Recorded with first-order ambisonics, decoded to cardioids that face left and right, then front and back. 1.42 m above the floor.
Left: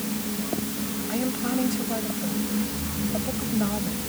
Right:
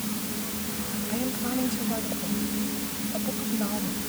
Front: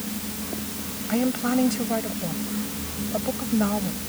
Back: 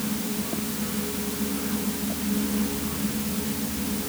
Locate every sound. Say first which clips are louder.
1.1 s a woman speaking: left 3 dB, front 6 dB; 10° left